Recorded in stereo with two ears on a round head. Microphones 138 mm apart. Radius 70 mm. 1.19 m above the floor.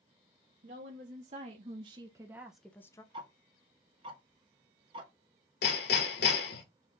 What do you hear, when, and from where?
0.6 s a woman speaking: 55° right (ahead or behind), 1.7 m; by 3.0 s 25° left (ahead or behind), 0.9 m
3.1 s ticking: 35° right (ahead or behind), 1.3 m
5.6 s hammering: 70° left (ahead or behind), 1.8 m